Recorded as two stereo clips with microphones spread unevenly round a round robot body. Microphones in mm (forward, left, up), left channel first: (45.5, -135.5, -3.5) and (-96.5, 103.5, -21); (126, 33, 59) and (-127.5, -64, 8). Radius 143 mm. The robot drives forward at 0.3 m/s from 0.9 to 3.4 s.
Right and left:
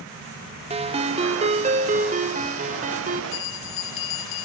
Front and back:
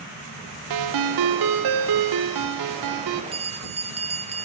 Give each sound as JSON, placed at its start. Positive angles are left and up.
{"t": 0.7, "sound": "a ringtone", "azimuth_deg": -170, "distance_m": 0.7}
{"t": 3.3, "sound": "a bell", "azimuth_deg": -100, "distance_m": 0.8}